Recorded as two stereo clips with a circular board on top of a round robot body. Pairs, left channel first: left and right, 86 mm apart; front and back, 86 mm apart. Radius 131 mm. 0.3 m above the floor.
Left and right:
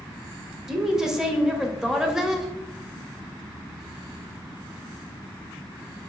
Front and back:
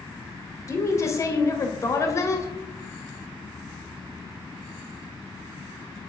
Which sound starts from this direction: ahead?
A woman speaking, at 0.7 s.